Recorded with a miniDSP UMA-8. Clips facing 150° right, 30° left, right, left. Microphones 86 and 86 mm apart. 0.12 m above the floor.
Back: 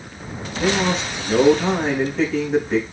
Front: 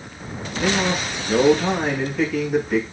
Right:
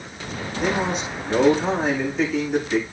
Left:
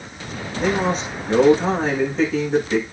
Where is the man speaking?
145° left, 7 m.